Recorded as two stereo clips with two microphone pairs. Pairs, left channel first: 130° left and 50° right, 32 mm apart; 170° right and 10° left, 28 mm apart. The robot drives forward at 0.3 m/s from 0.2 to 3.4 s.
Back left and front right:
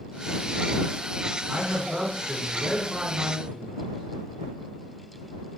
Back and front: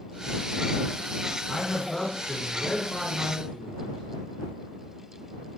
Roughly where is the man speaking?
Right.